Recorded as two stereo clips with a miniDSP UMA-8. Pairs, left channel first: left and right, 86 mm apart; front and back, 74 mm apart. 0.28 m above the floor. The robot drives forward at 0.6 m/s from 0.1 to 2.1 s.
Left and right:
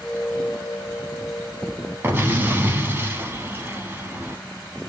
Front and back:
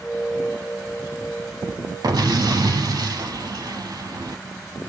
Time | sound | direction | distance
2.0 | an explosion | 150° right | 0.5 m